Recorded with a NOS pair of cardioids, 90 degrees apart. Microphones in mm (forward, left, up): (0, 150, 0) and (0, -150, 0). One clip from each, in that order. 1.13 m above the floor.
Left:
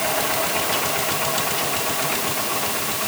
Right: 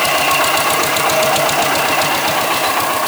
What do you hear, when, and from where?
Only background noise.